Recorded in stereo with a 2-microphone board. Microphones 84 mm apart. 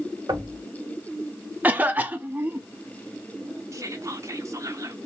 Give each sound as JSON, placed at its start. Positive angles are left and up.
{"t": 0.3, "sound": "knocking", "side_deg": -55, "distance_m": 1.3}
{"t": 1.6, "sound": "a cough", "side_deg": -20, "distance_m": 0.6}
{"t": 3.7, "sound": "whispering", "side_deg": -40, "distance_m": 0.9}